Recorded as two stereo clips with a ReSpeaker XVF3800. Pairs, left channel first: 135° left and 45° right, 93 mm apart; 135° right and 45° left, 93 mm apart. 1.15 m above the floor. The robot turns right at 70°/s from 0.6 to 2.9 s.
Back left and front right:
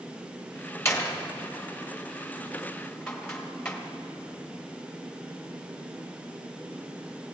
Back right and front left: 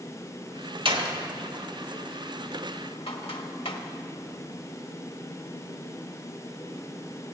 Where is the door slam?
70° left, 1.5 m; by 3.8 s 145° right, 1.5 m.